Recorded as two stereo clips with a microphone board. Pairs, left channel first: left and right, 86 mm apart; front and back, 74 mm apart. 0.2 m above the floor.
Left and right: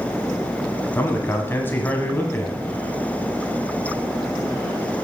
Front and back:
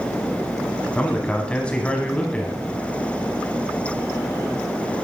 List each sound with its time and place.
0.9 s a man speaking: 60° left, 1.3 m